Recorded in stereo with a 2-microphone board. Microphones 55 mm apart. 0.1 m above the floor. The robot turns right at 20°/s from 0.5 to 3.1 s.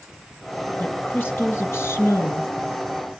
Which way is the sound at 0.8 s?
25° left.